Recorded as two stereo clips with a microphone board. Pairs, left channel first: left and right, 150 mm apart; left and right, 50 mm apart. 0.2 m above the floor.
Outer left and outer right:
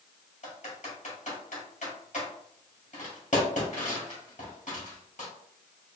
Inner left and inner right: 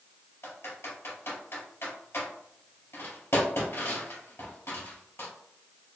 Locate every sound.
0.4 s typing on a keyboard: 55° left (ahead or behind), 1.9 m